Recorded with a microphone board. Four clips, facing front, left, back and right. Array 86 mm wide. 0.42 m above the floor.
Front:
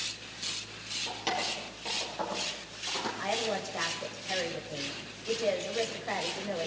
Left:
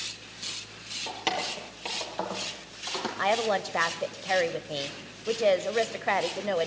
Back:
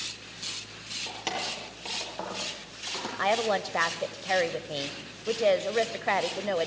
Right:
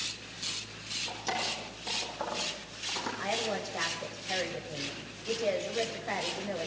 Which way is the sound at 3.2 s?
130° left.